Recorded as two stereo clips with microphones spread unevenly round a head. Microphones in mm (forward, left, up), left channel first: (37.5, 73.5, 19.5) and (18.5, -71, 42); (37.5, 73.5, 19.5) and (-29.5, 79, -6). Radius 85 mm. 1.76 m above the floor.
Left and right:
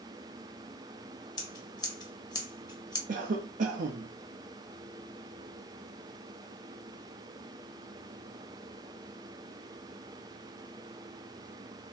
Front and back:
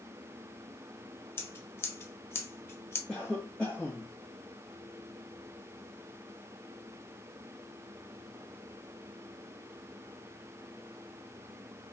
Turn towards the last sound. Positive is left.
turn(degrees=-80)